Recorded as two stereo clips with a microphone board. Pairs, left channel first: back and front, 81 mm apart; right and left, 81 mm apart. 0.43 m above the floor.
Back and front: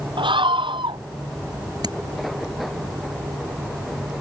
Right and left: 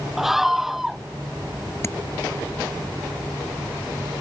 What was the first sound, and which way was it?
A scream, 5° left.